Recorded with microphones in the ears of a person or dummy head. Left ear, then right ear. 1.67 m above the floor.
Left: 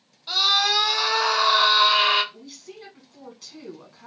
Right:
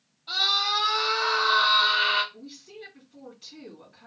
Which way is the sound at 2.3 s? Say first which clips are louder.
Left 2 dB; 90° left.